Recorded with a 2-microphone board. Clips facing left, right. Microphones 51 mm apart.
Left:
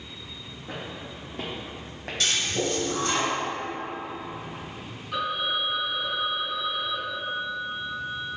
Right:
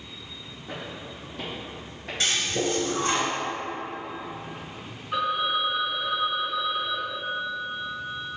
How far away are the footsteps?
About 1.4 m.